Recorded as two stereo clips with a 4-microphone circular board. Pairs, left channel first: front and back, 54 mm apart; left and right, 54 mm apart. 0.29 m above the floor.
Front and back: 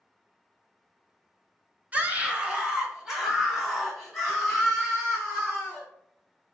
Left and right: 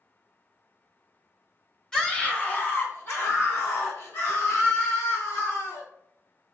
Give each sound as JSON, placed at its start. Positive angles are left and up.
{"t": 1.9, "sound": "a scream", "azimuth_deg": 155, "distance_m": 1.2}